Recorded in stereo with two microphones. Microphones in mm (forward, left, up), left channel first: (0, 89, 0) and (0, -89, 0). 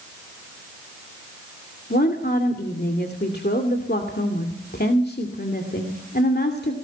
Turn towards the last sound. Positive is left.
turn(degrees=65)  # may be behind; listen again after turning